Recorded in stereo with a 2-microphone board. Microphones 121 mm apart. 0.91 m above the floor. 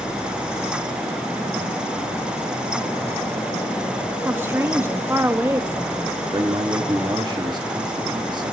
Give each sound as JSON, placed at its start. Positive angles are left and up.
{"t": 4.2, "sound": "a woman speaking", "side_deg": -20, "distance_m": 1.0}
{"t": 6.3, "sound": "a man speaking", "side_deg": -40, "distance_m": 1.2}